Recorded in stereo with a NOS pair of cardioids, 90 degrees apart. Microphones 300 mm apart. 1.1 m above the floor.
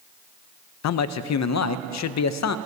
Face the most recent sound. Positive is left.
turn(degrees=65)